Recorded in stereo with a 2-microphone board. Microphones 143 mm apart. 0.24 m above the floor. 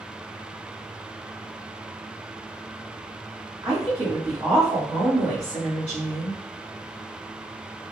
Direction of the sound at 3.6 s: 15° right (ahead or behind).